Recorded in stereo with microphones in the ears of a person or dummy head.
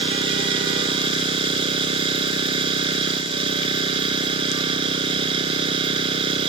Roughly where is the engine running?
Right.